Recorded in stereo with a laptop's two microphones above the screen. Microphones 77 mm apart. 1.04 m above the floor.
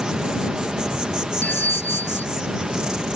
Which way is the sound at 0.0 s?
10° right (ahead or behind).